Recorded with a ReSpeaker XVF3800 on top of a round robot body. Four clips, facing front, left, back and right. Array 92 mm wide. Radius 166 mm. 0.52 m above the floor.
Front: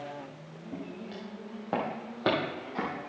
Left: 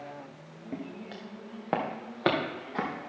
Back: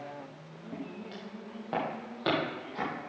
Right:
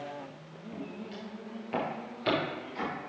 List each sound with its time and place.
0.7 s footsteps: 85° left, 2.5 m; by 3.1 s 65° left, 4 m